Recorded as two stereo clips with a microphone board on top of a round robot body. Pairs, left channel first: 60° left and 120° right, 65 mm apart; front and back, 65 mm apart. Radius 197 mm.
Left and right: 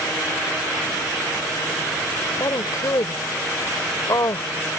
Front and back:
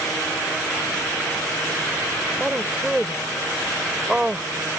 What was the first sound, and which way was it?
A woman speaking, 100° left.